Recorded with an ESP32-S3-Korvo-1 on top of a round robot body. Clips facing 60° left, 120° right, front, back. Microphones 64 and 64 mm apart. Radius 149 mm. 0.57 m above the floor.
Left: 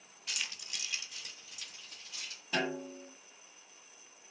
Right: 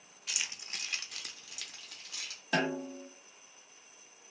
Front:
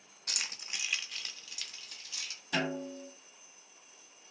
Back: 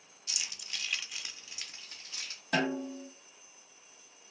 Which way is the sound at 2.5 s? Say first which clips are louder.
Right 3 dB, back 3 dB; 140° right.